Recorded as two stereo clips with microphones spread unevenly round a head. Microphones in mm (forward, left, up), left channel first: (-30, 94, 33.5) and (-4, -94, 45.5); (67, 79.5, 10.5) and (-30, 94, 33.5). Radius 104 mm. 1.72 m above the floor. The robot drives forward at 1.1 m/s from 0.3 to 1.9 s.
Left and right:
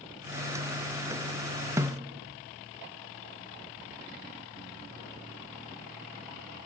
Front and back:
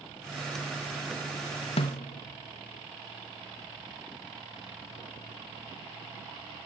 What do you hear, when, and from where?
1.8 s a snare drum: 15° right, 1.2 m